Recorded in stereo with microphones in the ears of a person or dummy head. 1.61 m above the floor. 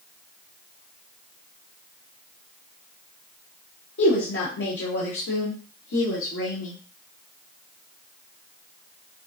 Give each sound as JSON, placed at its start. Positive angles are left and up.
{"t": 4.0, "sound": "a woman speaking", "side_deg": 70, "distance_m": 1.0}